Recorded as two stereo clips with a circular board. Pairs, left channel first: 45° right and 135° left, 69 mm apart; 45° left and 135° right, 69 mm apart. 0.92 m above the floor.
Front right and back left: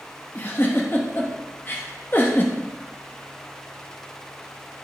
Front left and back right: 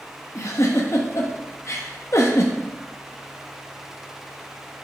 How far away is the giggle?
About 1.0 m.